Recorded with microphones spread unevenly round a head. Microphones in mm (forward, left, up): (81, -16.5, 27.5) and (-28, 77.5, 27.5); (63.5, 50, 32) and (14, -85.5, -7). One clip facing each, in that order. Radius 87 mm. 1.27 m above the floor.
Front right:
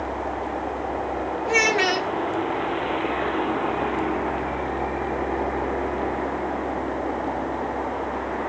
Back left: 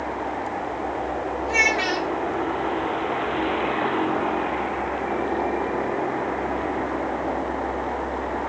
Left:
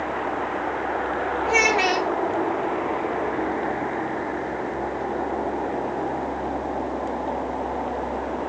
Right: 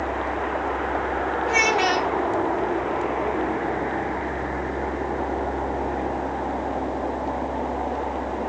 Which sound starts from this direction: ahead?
A child speaking, at 1.5 s.